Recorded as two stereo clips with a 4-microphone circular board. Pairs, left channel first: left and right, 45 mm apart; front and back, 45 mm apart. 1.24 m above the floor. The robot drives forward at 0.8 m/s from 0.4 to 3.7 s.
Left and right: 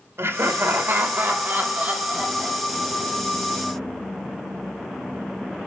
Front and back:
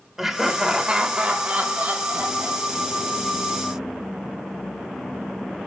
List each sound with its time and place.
0.2 s laughter: 100° right, 1.5 m; by 3.1 s 150° right, 3 m